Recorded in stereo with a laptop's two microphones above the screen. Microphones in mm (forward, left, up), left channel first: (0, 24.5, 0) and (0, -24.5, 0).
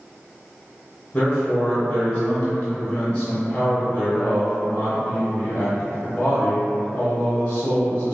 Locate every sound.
1.1 s a man speaking: 20° left (ahead or behind), 0.8 m